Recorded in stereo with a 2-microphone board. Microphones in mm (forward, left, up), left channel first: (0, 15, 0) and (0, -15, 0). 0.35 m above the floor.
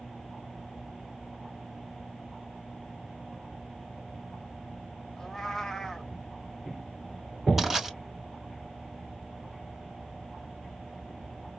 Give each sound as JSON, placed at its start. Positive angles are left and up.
{"t": 5.2, "sound": "a cat meowing", "side_deg": 15, "distance_m": 0.7}
{"t": 7.6, "sound": "crushing", "side_deg": -10, "distance_m": 3.0}